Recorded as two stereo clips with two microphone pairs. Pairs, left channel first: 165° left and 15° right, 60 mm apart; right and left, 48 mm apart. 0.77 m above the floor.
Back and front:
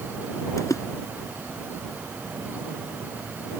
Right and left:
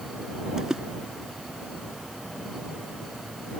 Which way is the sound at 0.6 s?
165° left.